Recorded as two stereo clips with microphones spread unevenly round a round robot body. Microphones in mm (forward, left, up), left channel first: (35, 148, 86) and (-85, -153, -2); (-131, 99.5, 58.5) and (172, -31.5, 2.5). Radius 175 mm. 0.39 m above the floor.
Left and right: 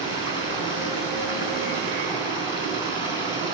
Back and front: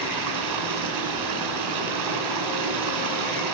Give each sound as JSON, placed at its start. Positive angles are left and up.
{"t": 0.0, "sound": "running water", "azimuth_deg": -5, "distance_m": 4.0}